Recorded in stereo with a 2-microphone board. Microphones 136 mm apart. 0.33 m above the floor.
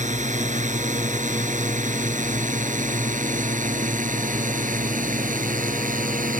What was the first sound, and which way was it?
A drone, 60° right (ahead or behind).